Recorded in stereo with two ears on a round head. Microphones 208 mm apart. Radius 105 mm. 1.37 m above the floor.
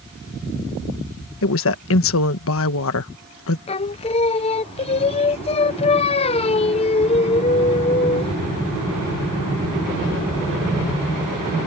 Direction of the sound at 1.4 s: 65° left (ahead or behind).